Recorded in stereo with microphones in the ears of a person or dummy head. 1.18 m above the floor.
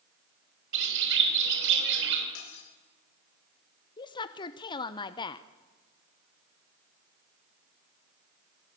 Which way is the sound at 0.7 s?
65° right (ahead or behind).